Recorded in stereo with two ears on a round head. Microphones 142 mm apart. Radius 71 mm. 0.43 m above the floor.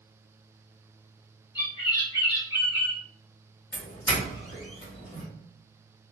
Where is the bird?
25° left (ahead or behind), 1.0 m.